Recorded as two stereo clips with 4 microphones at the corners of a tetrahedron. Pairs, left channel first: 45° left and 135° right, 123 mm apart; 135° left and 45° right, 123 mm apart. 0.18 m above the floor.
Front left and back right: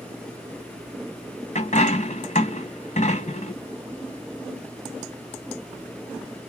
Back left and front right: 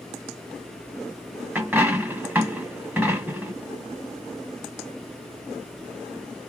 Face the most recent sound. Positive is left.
turn(degrees=30)